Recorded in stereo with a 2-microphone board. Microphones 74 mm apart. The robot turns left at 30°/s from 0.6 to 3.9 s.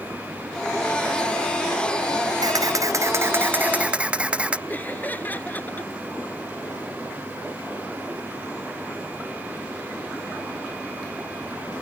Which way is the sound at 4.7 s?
25° left (ahead or behind).